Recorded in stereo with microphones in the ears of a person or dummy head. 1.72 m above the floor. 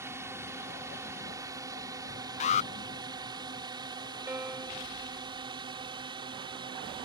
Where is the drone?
15° right (ahead or behind); by 7.0 s 25° right (ahead or behind).